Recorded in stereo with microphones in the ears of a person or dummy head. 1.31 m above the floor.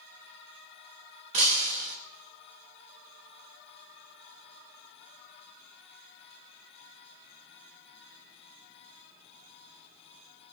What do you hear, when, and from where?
1.3 s breaking glass: 35° right (ahead or behind), 0.9 m